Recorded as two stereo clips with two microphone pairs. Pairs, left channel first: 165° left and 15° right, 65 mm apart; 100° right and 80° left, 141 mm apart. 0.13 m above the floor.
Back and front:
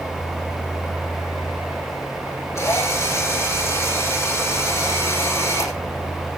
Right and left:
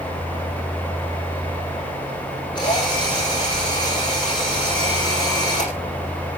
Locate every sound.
2.5 s a drill: 155° right, 7.5 m